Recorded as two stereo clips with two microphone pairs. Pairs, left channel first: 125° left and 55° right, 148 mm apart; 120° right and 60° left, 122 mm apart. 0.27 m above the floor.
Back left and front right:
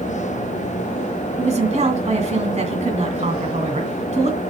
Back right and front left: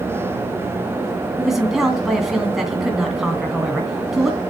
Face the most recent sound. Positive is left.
turn(degrees=-30)